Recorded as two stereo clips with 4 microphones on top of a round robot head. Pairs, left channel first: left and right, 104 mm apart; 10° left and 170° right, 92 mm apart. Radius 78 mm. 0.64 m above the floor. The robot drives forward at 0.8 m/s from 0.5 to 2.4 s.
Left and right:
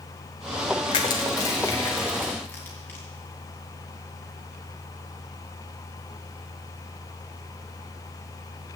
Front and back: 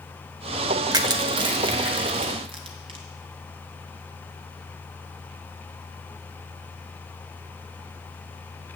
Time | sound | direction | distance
0.9 | crushing | 140° left | 0.7 m